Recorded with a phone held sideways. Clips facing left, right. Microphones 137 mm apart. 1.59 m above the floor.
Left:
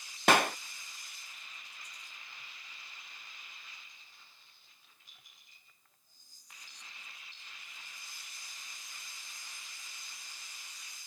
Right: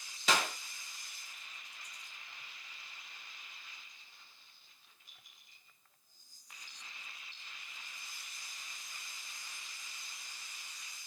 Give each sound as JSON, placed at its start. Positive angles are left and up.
{"t": 0.3, "sound": "a clap", "side_deg": 65, "distance_m": 0.5}